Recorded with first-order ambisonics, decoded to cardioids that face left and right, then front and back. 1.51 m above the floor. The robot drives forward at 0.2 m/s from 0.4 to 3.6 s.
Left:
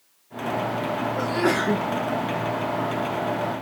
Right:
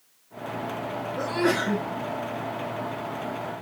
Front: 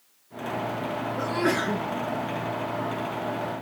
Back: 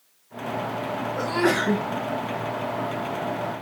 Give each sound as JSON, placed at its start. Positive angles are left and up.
{"t": 1.2, "sound": "a sneeze", "azimuth_deg": 165, "distance_m": 1.2}